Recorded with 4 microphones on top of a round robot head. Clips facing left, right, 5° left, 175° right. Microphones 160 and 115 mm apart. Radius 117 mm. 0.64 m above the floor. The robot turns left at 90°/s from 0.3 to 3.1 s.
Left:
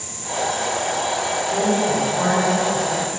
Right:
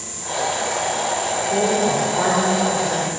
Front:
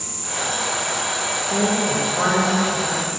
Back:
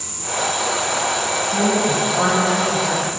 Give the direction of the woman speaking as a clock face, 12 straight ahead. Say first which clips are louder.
Right 1 dB, back 2 dB; 1 o'clock.